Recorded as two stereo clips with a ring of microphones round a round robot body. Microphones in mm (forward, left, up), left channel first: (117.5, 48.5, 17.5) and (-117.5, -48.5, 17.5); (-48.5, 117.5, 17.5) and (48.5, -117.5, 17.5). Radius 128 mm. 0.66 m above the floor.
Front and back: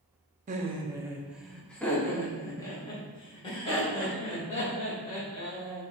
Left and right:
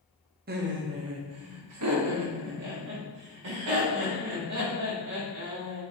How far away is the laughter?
About 0.7 m.